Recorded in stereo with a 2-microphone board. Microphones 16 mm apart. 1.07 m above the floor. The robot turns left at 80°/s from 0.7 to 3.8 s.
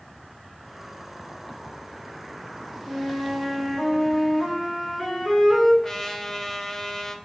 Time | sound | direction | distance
2.8 | a flute | 135° right | 3.5 m
5.8 | a trumpet | 30° left (ahead or behind) | 0.7 m